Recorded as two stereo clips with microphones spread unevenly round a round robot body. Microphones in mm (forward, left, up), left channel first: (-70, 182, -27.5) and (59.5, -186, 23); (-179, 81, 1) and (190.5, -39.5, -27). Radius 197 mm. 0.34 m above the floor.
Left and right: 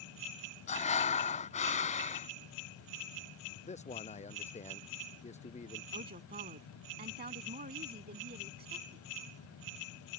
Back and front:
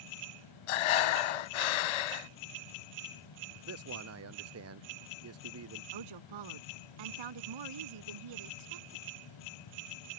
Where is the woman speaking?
Straight ahead.